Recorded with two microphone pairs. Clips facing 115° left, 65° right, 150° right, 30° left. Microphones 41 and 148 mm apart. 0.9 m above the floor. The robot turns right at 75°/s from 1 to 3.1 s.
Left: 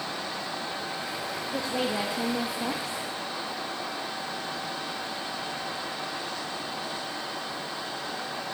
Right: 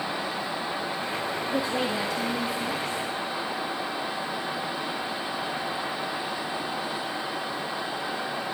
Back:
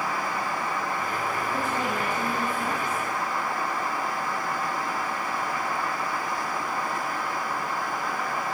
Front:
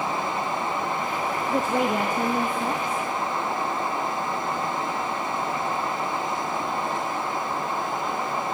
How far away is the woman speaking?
About 0.8 m.